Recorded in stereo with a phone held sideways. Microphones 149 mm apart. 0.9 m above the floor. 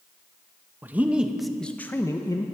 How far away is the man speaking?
About 0.8 m.